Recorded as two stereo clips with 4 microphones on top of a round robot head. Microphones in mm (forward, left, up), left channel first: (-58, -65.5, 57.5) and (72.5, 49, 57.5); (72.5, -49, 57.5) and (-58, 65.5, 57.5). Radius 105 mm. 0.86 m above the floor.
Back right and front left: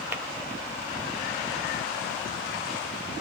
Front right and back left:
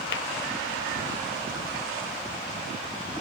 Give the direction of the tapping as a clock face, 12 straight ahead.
1 o'clock.